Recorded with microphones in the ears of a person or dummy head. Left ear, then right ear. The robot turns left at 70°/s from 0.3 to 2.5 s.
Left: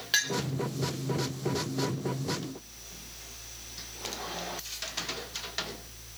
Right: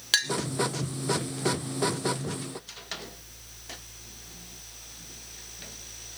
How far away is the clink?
About 1.1 m.